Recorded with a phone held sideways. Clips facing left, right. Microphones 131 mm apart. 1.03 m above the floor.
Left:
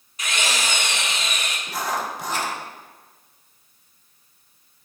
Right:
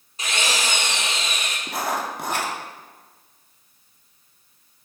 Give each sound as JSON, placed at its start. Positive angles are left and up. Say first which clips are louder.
{"t": 0.2, "sound": "a drill", "louder": "right 1 dB", "side_deg": -30, "distance_m": 2.0}
{"t": 1.7, "sound": "writing", "louder": "right 1 dB", "side_deg": -55, "distance_m": 1.9}